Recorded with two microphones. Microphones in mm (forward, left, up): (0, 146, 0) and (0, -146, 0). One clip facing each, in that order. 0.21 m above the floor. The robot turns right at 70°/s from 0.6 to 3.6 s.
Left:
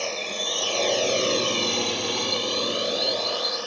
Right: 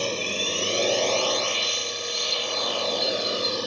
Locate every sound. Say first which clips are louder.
0.0 s a drone: right 3 dB; 40° right (ahead or behind); by 3.7 s 45° right (ahead or behind)